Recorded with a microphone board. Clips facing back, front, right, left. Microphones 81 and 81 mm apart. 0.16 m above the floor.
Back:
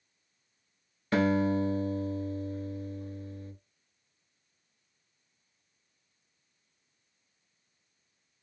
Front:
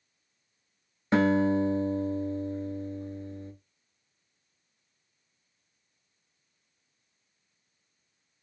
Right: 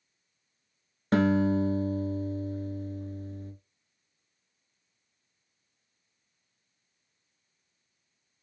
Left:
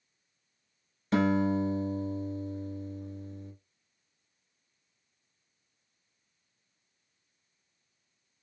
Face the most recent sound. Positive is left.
turn(degrees=-60)